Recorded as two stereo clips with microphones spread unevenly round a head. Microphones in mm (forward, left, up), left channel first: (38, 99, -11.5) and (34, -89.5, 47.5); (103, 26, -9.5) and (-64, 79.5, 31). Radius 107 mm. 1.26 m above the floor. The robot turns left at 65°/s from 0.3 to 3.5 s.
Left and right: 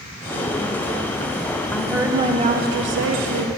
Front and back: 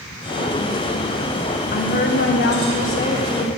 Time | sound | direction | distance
1.7 | a woman speaking | 15° left | 1.3 m